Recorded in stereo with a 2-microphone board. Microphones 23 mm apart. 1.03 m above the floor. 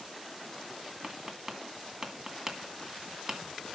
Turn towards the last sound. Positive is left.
turn(degrees=-25)  # may be behind; listen again after turning